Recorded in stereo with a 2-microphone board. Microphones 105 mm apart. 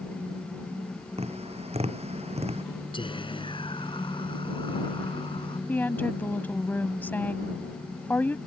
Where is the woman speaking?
15° left (ahead or behind).